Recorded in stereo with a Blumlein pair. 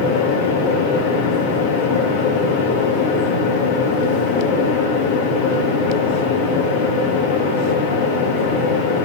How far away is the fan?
About 1.8 m.